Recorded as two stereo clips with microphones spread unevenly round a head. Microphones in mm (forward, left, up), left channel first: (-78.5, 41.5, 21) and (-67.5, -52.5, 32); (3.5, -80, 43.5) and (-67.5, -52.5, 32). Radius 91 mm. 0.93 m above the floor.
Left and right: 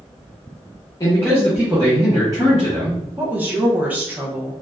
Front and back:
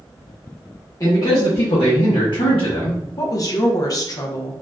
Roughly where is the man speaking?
Ahead left.